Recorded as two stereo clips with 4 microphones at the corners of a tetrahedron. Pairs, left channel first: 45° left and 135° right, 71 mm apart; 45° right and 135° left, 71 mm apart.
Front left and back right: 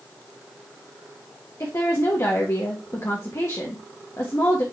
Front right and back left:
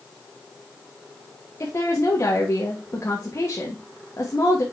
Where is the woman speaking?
Straight ahead, 1.4 m.